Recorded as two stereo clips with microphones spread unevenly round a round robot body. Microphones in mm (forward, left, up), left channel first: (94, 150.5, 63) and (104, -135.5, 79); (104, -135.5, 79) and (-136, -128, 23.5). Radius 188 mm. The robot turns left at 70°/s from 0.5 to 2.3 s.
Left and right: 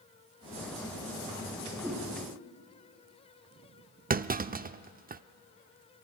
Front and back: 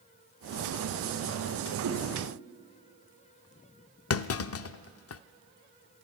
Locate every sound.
1.8 s a whoosh: 170° right, 4.5 m; by 2.0 s 175° left, 4.5 m
4.1 s a clunk: 30° right, 0.6 m